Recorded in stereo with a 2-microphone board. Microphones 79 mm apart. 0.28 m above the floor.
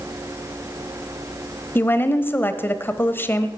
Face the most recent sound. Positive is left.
turn(degrees=30)  # may be behind; listen again after turning